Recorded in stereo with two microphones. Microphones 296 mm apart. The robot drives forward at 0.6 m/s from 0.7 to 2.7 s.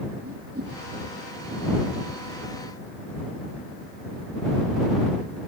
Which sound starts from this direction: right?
A whoosh, at 0.2 s.